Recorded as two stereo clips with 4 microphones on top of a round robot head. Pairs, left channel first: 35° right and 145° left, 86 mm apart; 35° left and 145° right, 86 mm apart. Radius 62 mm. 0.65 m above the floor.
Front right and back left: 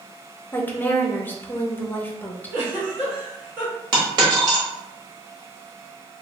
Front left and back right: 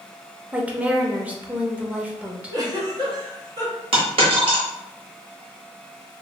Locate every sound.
0.5 s a woman speaking: 85° right, 0.6 m
2.5 s a giggle: 160° right, 1.5 m
3.9 s a dropped coin: 170° right, 1.0 m